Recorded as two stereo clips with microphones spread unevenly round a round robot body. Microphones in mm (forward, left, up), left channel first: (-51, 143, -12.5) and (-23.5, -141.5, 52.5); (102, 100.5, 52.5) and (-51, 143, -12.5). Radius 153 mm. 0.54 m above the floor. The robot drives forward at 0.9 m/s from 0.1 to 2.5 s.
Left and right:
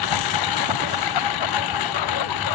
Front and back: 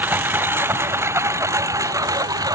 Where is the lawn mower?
85° left; by 2.6 s 95° left.